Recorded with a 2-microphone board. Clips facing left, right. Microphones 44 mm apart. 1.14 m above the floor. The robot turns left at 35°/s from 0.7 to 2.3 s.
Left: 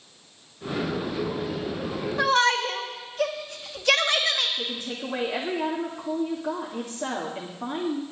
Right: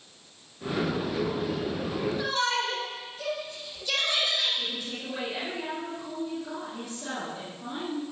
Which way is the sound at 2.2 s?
70° left (ahead or behind).